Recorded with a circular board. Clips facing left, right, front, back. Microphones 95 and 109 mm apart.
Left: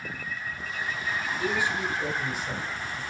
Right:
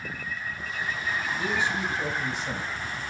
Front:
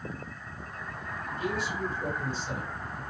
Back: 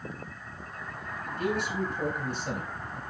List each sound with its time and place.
1.3 s a man speaking: 155° right, 9 m